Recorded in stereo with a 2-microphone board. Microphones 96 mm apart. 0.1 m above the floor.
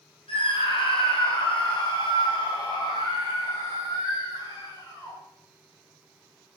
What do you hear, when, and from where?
0.3 s a scream: 70° left (ahead or behind), 3.5 m; by 5.2 s 45° left (ahead or behind), 6.5 m